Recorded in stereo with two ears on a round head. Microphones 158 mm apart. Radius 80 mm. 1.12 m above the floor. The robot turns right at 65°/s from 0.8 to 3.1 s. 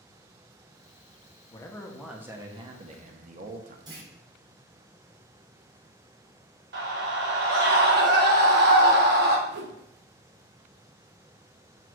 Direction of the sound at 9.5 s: 65° right (ahead or behind).